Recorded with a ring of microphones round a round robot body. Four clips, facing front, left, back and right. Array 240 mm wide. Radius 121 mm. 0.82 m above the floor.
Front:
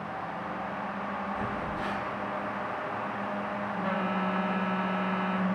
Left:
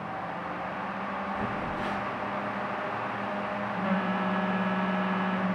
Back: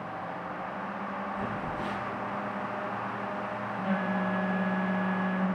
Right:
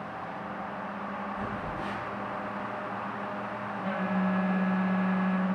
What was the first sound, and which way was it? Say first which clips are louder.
A phone buzzing: left 3 dB, front 1 dB; 55° left.